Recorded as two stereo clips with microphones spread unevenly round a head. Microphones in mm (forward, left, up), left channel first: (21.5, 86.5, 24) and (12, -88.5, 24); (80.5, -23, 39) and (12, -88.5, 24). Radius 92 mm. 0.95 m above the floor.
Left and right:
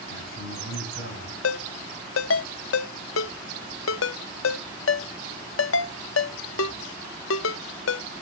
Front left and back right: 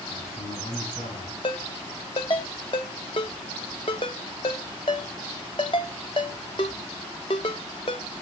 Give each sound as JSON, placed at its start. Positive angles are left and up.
{"t": 0.1, "sound": "a man speaking", "azimuth_deg": 80, "distance_m": 5.5}
{"t": 1.4, "sound": "a ringtone", "azimuth_deg": 95, "distance_m": 0.7}